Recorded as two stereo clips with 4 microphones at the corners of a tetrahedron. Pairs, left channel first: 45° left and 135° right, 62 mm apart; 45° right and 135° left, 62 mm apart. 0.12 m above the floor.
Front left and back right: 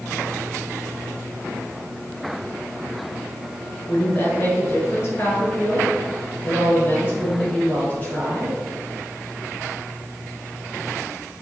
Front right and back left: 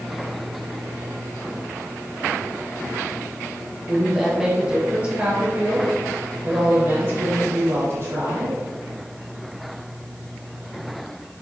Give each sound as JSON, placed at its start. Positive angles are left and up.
{"t": 3.9, "sound": "a woman speaking", "azimuth_deg": 45, "distance_m": 1.8}